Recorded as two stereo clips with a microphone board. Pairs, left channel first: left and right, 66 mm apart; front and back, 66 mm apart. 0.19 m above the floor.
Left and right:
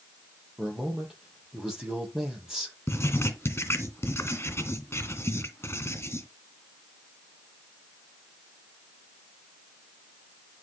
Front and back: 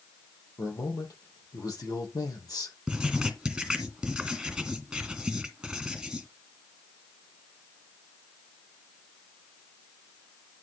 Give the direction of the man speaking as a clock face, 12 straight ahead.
12 o'clock.